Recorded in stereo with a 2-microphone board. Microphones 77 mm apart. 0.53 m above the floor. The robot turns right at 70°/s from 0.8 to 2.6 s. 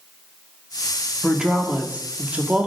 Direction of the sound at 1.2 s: 5° right (ahead or behind).